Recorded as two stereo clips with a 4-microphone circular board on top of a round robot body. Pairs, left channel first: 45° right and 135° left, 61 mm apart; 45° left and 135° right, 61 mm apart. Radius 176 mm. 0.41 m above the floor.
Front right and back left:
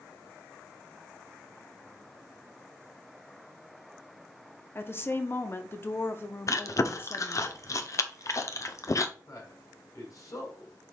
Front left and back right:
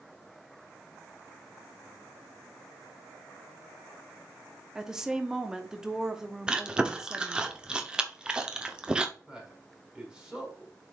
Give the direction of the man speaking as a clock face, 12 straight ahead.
2 o'clock.